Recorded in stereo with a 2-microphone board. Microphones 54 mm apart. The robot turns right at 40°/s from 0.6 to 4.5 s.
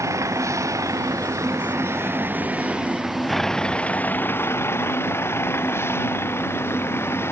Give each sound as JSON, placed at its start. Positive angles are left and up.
{"t": 0.0, "sound": "a vehicle", "azimuth_deg": -110}